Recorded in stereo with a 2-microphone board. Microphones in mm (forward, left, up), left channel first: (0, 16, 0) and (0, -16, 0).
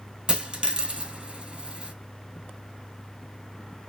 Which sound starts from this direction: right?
A dropped coin, at 0.3 s.